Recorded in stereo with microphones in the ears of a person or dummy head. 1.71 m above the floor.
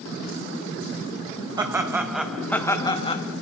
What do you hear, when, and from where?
1.6 s laughter: 25° right (ahead or behind), 3 m; by 3.2 s 35° left (ahead or behind), 2.5 m